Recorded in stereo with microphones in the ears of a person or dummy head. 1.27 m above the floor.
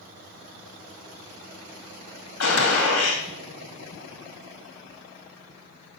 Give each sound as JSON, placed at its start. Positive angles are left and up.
{"t": 2.4, "sound": "a gunshot", "side_deg": 70, "distance_m": 2.5}